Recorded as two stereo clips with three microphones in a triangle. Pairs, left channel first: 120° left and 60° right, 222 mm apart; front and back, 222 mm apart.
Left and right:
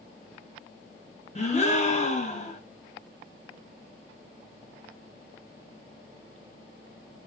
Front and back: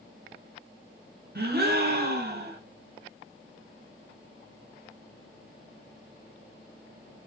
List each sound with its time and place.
1.4 s a gasp: 165° left, 0.9 m